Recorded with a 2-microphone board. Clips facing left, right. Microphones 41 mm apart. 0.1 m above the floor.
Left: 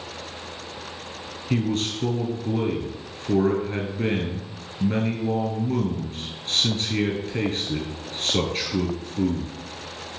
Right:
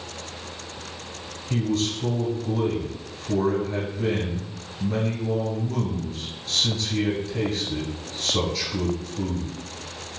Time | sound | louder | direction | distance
1.5 | a man speaking | even | 35° left (ahead or behind) | 1.3 m